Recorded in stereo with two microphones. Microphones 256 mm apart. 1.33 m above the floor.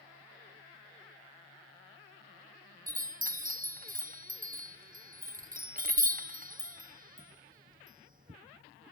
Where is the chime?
35° right (ahead or behind), 0.7 m.